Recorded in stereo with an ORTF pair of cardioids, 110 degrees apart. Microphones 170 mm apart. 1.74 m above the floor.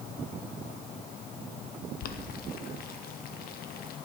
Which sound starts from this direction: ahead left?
Boiling, at 2.0 s.